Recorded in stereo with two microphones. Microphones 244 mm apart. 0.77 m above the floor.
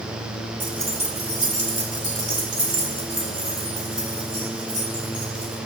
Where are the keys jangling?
50° right (ahead or behind), 1.0 m; by 5.6 s 80° right, 3.5 m.